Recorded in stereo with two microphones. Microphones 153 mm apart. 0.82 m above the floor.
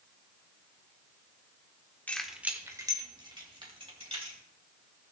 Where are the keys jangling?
10° left (ahead or behind), 1.1 m; by 4.4 s 40° right (ahead or behind), 3.5 m.